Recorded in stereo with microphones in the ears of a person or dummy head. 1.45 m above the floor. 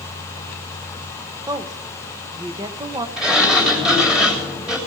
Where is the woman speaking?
20° right (ahead or behind), 1.3 m.